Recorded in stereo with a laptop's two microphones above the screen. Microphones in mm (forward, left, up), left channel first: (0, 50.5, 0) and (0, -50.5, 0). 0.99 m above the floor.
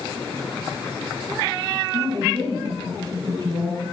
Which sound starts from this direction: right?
A woman speaking, at 1.9 s.